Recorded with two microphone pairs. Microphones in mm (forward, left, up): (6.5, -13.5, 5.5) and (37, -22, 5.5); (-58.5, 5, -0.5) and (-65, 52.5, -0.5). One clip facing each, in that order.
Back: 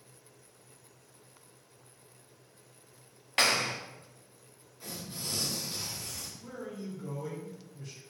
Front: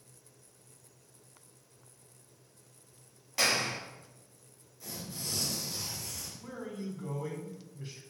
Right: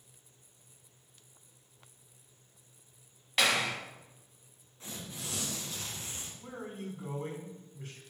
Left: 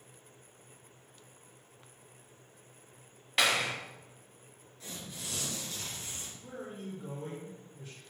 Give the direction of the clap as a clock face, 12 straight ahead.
6 o'clock.